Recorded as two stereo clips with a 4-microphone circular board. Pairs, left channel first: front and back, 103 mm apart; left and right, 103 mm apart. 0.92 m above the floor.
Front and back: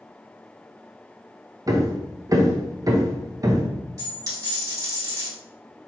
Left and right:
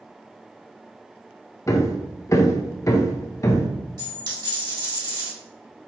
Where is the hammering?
135° left, 0.5 m.